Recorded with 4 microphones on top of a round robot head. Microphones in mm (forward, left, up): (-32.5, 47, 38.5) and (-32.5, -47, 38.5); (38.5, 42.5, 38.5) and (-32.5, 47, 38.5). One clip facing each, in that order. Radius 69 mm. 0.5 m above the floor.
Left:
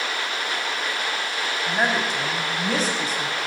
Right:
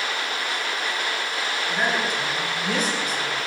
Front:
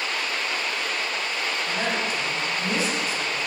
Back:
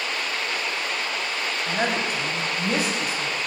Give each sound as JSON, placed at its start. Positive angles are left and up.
{"t": 1.6, "sound": "a woman speaking", "azimuth_deg": 150, "distance_m": 3.0}